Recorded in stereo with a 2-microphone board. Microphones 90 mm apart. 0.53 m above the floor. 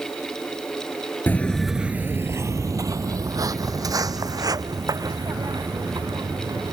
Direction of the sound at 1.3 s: 20° left (ahead or behind).